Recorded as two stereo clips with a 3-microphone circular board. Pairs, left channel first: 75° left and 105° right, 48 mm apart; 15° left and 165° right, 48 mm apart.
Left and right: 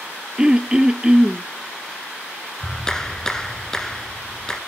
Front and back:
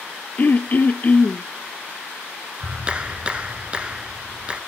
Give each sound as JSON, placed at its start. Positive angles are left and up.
{"t": 0.4, "sound": "throat clearing", "azimuth_deg": -30, "distance_m": 0.7}
{"t": 2.6, "sound": "a clap", "azimuth_deg": 145, "distance_m": 1.1}